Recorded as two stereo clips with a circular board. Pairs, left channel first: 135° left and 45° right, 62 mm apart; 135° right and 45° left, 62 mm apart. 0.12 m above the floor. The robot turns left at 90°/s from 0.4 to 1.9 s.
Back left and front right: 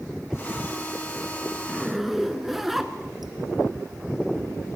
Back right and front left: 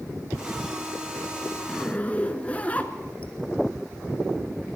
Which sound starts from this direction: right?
A zipper, at 1.7 s.